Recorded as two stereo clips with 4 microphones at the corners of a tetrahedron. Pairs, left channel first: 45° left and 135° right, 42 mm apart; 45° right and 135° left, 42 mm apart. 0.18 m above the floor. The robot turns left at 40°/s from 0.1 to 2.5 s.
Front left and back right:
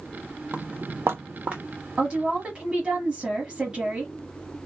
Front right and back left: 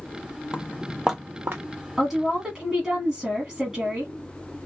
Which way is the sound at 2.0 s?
150° right.